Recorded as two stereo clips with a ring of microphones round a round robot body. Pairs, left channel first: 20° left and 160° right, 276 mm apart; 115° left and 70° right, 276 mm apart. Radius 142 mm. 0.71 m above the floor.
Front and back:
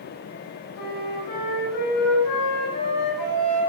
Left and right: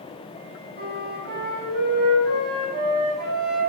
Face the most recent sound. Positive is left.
turn(degrees=-10)